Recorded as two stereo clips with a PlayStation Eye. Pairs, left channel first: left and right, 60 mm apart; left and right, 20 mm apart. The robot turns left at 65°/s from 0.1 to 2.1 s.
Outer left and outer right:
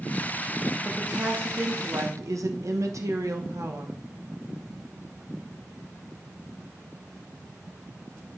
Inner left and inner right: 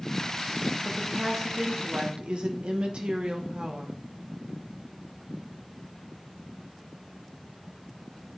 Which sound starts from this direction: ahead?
A woman speaking, at 0.8 s.